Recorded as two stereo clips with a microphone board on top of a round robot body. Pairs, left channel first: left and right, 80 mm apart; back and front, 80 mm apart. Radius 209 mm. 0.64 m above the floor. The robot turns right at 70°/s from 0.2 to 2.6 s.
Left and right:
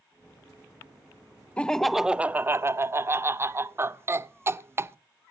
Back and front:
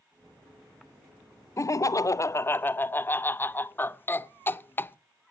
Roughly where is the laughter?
Behind.